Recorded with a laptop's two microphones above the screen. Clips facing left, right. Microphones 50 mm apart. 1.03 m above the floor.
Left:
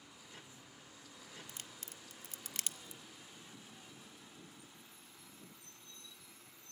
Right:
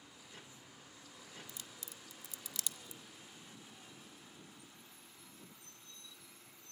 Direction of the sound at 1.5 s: 50° left (ahead or behind).